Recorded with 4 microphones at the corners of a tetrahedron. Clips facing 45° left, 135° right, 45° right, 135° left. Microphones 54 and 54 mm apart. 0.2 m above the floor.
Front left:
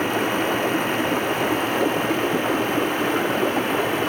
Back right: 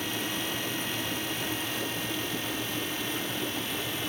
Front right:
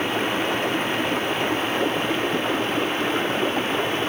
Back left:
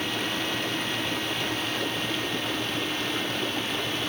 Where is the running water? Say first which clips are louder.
Front left 11 dB, front right 6 dB; 10° left.